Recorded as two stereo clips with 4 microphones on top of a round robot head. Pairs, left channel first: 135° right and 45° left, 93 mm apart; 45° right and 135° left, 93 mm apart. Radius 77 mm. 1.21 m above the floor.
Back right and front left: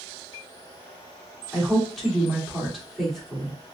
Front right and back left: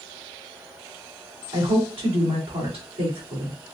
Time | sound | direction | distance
1.5 | a woman speaking | 135° left | 3 m